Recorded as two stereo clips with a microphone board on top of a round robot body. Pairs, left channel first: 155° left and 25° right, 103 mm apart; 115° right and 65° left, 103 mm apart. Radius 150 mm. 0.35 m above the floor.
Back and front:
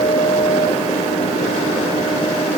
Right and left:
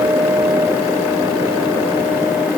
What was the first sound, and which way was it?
Only background noise.